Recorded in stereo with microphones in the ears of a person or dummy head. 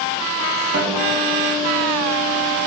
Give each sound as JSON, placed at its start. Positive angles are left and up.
{"t": 0.7, "sound": "a guitar", "side_deg": -55, "distance_m": 3.0}